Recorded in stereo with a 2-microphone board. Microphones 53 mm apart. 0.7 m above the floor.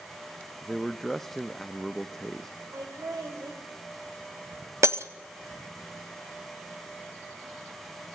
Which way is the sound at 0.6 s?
5° left (ahead or behind).